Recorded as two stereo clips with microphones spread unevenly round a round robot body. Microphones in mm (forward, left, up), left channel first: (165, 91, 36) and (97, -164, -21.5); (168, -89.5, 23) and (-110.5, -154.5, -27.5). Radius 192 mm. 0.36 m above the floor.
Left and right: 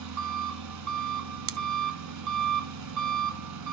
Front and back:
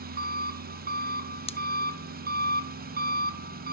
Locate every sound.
0.0 s an engine running: 105° right, 1.3 m
1.5 s scissors: 60° right, 0.6 m